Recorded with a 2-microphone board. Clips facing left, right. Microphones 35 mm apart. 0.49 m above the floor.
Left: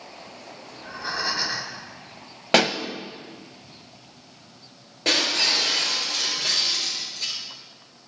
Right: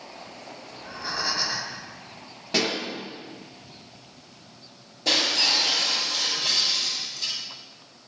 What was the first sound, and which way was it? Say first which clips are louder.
Breathing: left 2 dB; 25° left (ahead or behind).